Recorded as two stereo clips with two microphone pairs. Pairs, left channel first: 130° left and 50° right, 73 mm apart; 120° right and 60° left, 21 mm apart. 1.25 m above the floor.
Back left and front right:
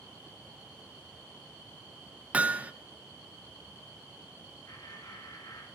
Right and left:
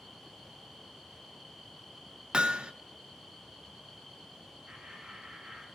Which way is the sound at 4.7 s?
95° left.